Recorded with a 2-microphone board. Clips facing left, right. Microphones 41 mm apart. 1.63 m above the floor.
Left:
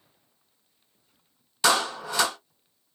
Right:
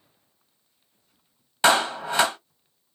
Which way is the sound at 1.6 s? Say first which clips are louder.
Right 4 dB; 30° right (ahead or behind).